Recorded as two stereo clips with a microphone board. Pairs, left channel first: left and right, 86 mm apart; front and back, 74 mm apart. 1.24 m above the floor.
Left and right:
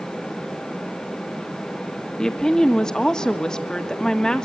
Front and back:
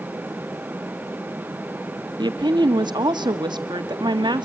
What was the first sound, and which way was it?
A woman speaking, 170° left.